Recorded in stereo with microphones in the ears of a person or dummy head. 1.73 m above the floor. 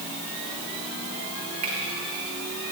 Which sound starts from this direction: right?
A finger snap, at 1.6 s.